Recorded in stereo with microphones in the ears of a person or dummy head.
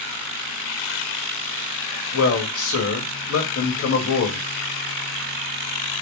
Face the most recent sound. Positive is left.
turn(degrees=85)